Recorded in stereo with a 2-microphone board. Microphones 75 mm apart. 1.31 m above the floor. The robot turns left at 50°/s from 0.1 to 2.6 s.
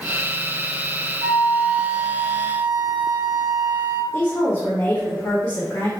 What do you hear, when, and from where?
1.2 s a flute: straight ahead, 1.3 m; by 4.0 s 70° right, 1.3 m
4.1 s a woman speaking: 50° left (ahead or behind), 1.2 m